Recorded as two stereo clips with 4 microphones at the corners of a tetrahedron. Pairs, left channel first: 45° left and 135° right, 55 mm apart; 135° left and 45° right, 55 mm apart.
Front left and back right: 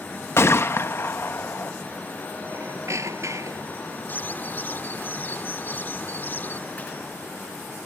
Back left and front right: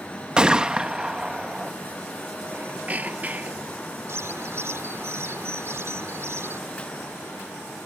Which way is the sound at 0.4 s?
25° left.